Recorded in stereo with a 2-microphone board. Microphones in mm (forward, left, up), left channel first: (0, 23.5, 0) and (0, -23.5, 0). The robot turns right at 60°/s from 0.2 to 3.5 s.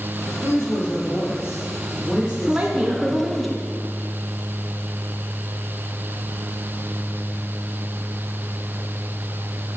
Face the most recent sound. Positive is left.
turn(degrees=0)